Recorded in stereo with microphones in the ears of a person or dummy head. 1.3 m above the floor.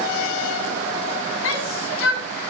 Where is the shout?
85° left, 10 m.